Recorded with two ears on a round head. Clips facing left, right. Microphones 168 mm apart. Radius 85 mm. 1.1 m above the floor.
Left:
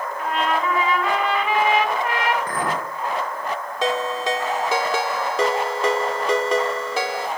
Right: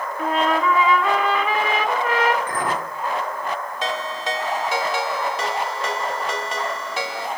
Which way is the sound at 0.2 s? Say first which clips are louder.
Right 3 dB; 70° right (ahead or behind).